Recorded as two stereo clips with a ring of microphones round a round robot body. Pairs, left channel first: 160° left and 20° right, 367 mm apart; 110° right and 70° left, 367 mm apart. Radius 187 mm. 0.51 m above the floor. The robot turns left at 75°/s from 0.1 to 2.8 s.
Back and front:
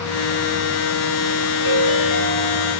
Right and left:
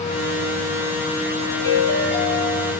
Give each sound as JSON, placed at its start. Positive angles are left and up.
{"t": 1.6, "sound": "a ringtone", "azimuth_deg": -170, "distance_m": 8.0}